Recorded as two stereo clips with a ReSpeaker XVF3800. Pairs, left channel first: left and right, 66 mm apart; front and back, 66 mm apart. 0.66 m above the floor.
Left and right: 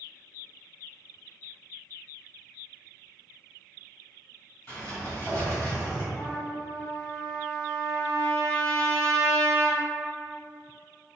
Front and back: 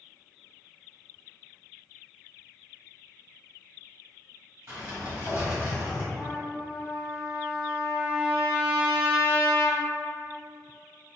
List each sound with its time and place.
4.7 s a sliding door: 135° left, 1.3 m
6.2 s a trumpet: 135° left, 0.6 m